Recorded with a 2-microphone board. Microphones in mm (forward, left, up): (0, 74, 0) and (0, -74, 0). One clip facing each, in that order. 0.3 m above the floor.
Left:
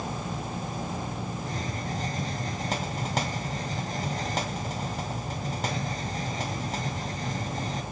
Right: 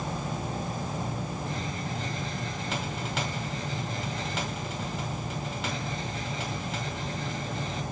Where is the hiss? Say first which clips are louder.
Left 1 dB; 40° left (ahead or behind), 1.7 m.